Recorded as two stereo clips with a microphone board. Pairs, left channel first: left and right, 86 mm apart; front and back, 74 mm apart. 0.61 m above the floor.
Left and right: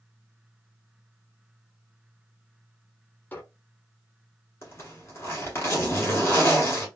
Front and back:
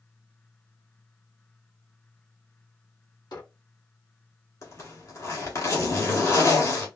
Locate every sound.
3.3 s a squeak: 20° left, 0.8 m
4.6 s a zipper: 35° left, 1.4 m